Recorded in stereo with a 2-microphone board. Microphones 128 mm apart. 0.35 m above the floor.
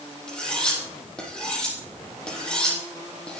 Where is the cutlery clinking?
5° left (ahead or behind), 8.5 m.